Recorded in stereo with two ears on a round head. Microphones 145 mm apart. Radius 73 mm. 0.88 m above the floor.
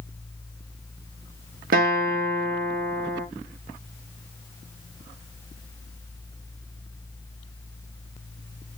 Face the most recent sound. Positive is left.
turn(degrees=-60)  # may be behind; listen again after turning